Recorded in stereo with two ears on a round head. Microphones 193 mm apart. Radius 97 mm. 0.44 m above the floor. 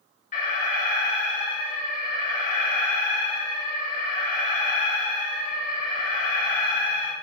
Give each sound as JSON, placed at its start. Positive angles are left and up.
{"t": 0.3, "sound": "an alarm", "side_deg": 40, "distance_m": 4.0}